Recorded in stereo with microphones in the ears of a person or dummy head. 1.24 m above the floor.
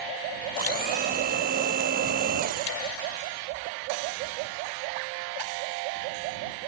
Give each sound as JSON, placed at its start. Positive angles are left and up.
{"t": 0.6, "sound": "a blender", "side_deg": -45}